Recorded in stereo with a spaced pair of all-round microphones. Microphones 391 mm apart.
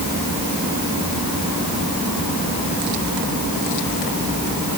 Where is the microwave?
No microwave in this recording.